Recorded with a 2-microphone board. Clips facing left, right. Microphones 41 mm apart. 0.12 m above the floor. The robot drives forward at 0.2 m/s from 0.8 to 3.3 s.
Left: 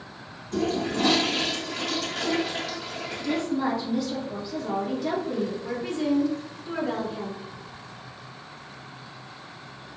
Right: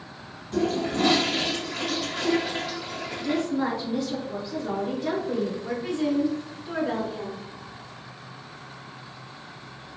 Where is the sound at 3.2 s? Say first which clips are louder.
Even; 35° right (ahead or behind), 1.4 m.